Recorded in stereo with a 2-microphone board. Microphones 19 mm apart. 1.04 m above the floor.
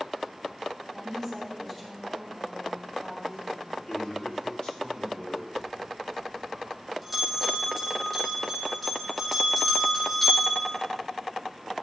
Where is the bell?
10° left (ahead or behind), 2.5 m.